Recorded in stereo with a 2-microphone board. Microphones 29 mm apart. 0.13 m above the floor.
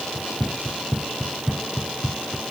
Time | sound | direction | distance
0.1 | running footsteps | 10° right (ahead or behind) | ?